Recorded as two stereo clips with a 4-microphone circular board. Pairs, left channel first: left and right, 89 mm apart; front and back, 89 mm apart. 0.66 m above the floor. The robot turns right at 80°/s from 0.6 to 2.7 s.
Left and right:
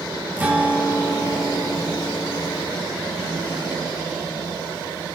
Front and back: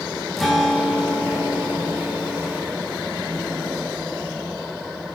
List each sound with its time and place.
0.4 s a guitar: 80° right, 0.6 m; by 2.6 s 80° left, 0.6 m